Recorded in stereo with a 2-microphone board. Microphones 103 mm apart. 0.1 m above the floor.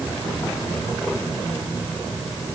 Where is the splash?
No splash in this recording.